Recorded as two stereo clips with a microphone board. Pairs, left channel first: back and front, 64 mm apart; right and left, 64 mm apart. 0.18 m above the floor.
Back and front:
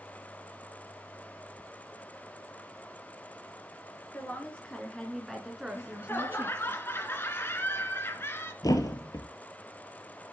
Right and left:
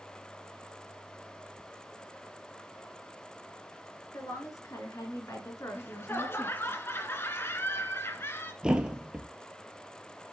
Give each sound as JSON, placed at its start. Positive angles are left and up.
{"t": 4.1, "sound": "a woman speaking", "azimuth_deg": -120, "distance_m": 3.5}
{"t": 5.7, "sound": "laughter", "azimuth_deg": -135, "distance_m": 1.8}
{"t": 8.6, "sound": "a thud", "azimuth_deg": 165, "distance_m": 1.3}